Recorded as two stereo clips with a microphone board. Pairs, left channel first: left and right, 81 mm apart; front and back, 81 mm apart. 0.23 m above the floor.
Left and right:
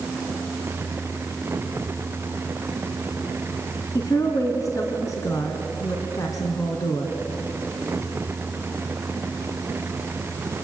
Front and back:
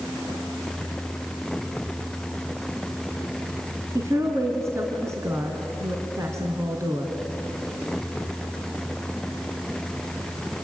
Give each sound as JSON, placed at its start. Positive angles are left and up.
{"t": 4.0, "sound": "a woman speaking", "azimuth_deg": 130, "distance_m": 2.5}